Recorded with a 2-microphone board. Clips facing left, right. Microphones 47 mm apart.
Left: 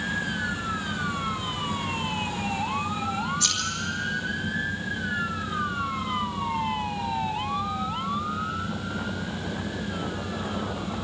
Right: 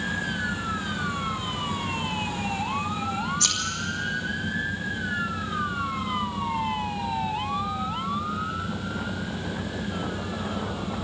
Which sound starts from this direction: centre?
Scissors, at 3.4 s.